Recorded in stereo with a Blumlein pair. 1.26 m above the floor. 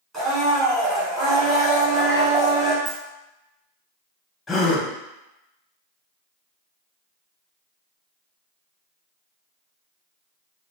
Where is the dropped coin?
10° right, 1.7 m.